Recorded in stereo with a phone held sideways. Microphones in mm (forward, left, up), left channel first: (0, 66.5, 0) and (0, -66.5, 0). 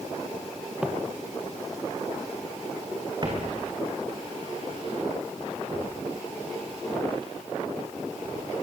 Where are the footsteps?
10° right (ahead or behind), 2 m; by 8.4 s 45° right (ahead or behind), 12.5 m.